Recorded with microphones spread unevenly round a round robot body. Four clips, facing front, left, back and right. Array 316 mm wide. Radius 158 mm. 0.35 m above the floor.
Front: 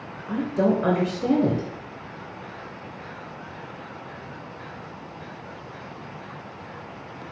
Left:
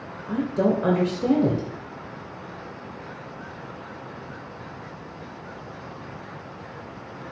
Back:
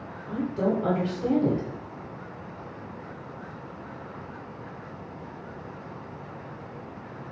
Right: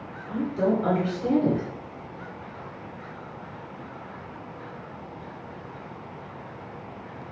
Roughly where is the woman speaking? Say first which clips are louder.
Left 2 dB, front 4 dB; ahead left.